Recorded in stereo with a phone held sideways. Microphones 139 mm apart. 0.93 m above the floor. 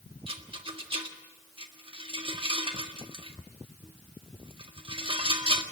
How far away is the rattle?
About 1.6 m.